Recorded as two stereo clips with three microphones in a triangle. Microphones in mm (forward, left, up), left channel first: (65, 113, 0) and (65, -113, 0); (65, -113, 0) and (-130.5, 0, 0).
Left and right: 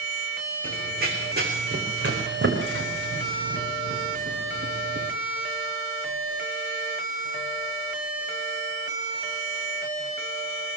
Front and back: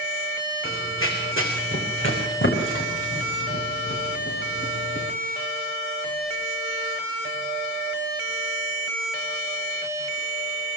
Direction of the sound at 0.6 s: 45° right.